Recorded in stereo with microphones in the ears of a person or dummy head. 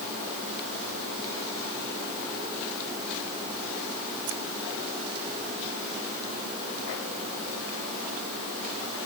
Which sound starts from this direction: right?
Keys jangling, at 4.3 s.